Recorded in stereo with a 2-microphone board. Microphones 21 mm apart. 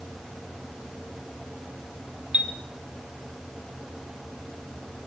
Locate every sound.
2.3 s a chime: 70° right (ahead or behind), 2.5 m